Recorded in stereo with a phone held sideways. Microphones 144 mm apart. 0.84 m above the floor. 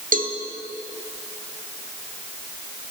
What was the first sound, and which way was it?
A cowbell, 75° right (ahead or behind).